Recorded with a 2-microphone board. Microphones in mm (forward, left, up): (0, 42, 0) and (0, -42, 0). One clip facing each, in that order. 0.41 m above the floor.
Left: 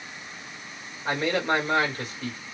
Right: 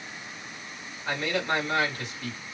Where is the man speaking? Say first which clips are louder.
Left 3 dB; 35° left (ahead or behind), 1.8 m.